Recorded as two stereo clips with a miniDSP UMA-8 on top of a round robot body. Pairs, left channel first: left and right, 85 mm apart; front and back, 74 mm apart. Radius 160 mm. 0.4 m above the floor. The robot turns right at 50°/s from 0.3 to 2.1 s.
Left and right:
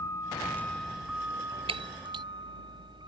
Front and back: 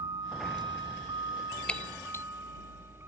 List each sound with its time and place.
0.0 s a vehicle: 145° left; by 3.1 s 120° right
1.7 s breaking glass: 75° right; by 2.2 s 55° right